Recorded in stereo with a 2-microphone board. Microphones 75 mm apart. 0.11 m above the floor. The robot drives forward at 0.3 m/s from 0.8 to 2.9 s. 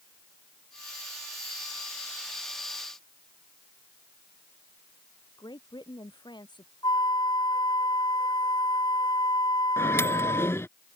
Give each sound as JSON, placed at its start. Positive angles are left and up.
{"t": 5.4, "sound": "a woman speaking", "side_deg": 75}
{"t": 6.8, "sound": "a flute", "side_deg": 75}
{"t": 9.8, "sound": "a microwave", "side_deg": 35}